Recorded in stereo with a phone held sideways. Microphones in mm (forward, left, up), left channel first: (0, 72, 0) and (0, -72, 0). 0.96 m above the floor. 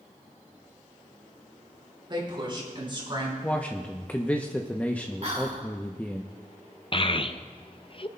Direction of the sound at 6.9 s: 40° left (ahead or behind).